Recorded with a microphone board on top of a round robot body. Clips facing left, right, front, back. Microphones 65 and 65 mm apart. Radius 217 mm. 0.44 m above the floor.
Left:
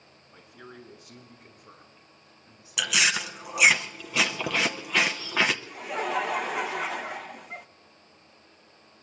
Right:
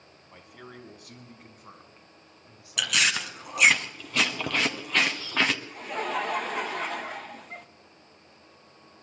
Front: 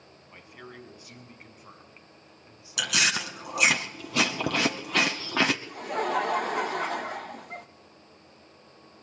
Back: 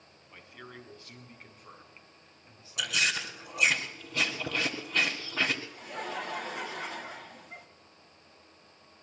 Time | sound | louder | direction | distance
0.3 | a man speaking | right 1 dB, front 2 dB | 75° right | 5 m
2.8 | chewing | left 1 dB, front 3 dB | 5° left | 0.9 m
5.7 | laughter | left 1 dB, front 9 dB | 5° left | 1.4 m